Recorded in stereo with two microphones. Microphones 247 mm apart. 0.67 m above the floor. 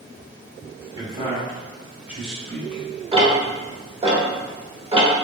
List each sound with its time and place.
0.9 s a man speaking: 20° right (ahead or behind), 1.8 m; by 2.8 s 5° left (ahead or behind), 2 m
3.1 s ticking: 20° right (ahead or behind), 1.2 m